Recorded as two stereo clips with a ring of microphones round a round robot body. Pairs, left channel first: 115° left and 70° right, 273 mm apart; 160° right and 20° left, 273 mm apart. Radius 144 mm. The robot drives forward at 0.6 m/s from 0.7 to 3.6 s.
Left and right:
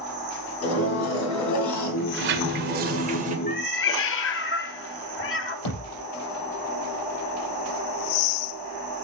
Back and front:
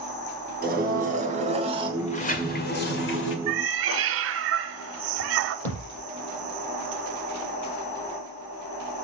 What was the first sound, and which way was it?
A blender, 80° left.